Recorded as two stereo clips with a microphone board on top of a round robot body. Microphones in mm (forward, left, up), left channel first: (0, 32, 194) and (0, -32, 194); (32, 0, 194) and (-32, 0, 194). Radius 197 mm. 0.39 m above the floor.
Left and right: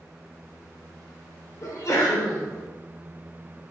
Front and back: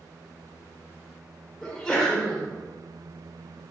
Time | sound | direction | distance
1.6 | a sneeze | 80° left | 1.7 m